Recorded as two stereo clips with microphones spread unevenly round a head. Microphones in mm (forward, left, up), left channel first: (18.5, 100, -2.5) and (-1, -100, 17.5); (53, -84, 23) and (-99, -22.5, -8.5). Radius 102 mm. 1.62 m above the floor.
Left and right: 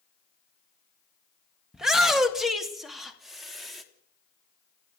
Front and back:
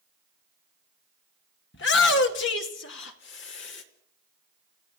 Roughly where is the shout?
Ahead.